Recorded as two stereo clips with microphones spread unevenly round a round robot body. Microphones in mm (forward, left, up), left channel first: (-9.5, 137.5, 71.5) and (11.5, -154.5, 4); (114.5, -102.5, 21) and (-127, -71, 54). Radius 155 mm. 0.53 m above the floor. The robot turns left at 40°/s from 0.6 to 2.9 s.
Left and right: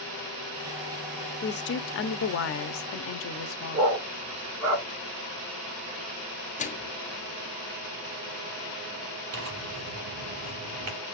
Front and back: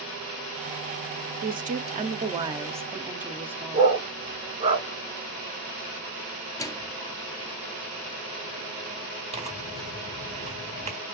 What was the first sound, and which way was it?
A woman speaking, 145° left.